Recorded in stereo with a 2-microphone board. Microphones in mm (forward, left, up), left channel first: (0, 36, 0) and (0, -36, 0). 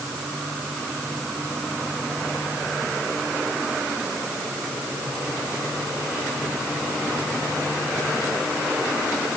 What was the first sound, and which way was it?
Only background noise.